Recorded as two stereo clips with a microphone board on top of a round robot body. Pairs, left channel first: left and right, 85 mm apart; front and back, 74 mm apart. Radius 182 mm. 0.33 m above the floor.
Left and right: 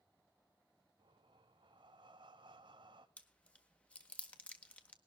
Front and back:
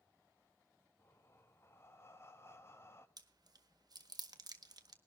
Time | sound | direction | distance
1.0 | breathing | 60° right | 0.5 m
3.2 | chewing | 165° left | 1.6 m